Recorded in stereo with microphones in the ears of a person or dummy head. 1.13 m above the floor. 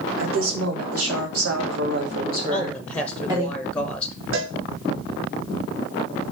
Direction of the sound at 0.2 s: 70° right (ahead or behind).